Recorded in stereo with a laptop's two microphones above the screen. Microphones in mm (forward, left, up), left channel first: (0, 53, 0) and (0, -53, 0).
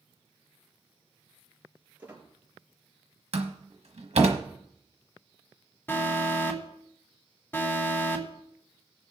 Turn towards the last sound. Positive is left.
turn(degrees=20)  # may be behind; listen again after turning